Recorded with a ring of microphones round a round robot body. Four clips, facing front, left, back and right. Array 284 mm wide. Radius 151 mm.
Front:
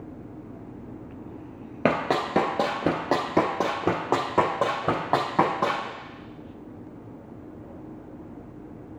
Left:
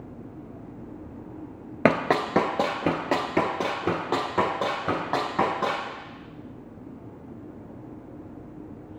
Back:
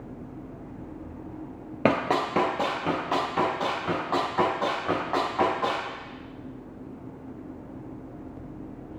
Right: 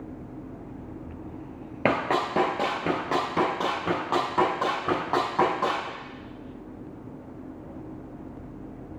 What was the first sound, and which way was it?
Running footsteps, 100° left.